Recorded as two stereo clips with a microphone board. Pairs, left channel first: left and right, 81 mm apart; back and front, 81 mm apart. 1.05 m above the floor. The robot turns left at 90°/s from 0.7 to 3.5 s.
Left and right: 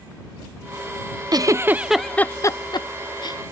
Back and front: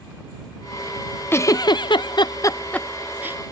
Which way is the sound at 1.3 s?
120° right.